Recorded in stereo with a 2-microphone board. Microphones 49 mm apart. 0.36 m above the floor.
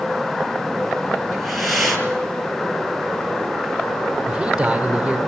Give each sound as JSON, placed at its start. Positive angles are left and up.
{"t": 1.3, "sound": "breathing", "side_deg": 0, "distance_m": 5.0}
{"t": 4.3, "sound": "a man speaking", "side_deg": -15, "distance_m": 1.2}